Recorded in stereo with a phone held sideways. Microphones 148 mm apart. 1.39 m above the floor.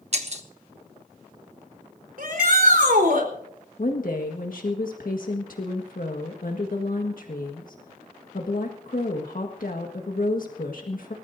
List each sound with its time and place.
0.1 s breaking glass: 45° right (ahead or behind), 1.3 m
2.2 s a shout: 75° right (ahead or behind), 4 m
3.8 s a woman speaking: 70° left (ahead or behind), 1.6 m